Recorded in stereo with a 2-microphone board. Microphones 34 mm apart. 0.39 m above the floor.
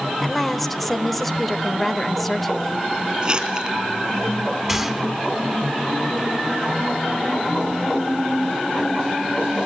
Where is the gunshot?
15° right (ahead or behind), 1.8 m.